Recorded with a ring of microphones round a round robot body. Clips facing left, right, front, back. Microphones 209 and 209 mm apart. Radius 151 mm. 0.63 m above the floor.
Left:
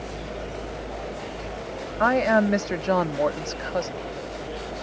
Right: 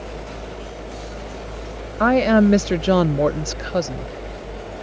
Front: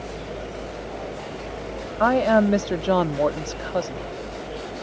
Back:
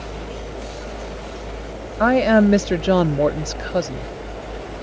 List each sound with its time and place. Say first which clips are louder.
2.0 s a woman speaking: right 6 dB, back 4 dB; 120° right